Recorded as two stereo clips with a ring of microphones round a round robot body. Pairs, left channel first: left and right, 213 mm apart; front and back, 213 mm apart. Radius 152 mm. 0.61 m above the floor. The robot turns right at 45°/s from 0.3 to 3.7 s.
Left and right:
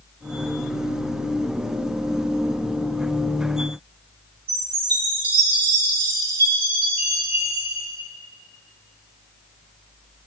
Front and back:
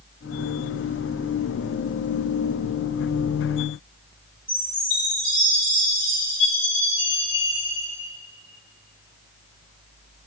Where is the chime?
100° right, 4 m.